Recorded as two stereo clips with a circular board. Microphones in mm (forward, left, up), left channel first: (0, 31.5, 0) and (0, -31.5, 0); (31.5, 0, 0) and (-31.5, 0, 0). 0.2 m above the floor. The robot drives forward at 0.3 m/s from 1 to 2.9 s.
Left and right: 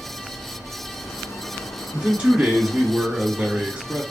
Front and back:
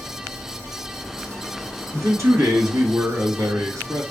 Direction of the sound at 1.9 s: 155° right.